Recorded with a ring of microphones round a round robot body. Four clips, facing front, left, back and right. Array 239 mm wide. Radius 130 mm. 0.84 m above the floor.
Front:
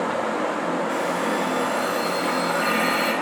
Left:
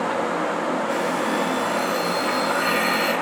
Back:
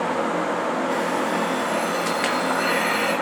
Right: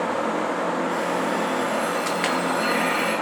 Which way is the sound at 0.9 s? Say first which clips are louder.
Left 1 dB, back 1 dB; 55° left.